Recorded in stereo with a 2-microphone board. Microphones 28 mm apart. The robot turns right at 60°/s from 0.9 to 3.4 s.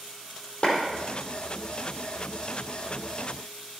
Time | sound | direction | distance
0.6 | a clap | 35° left (ahead or behind) | 4.5 m